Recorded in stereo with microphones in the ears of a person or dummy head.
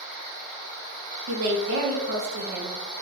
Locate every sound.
1.3 s a woman speaking: 55° right (ahead or behind), 0.6 m